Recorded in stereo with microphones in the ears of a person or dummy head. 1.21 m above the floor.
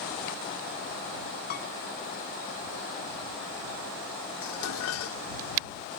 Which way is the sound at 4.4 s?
80° left.